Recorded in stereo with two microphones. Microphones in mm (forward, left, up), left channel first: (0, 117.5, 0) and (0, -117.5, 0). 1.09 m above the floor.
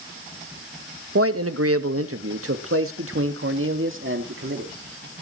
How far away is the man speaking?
About 1.1 m.